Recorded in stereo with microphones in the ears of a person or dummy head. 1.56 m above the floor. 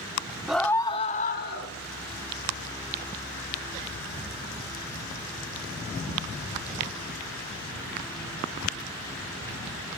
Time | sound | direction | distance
0.5 | a scream | 5° right (ahead or behind) | 1.0 m